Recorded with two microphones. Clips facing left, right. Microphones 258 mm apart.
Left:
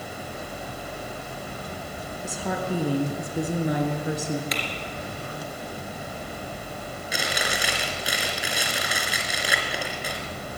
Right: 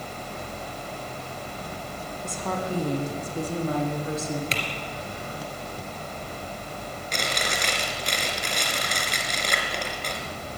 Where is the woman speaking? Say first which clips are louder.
Left 1 dB; 5° left (ahead or behind), 2.5 m; by 4.4 s 20° left (ahead or behind), 4 m.